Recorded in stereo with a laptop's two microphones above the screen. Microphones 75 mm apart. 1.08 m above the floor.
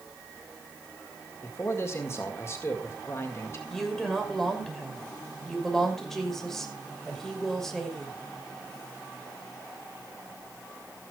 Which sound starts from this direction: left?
A man speaking, at 1.4 s.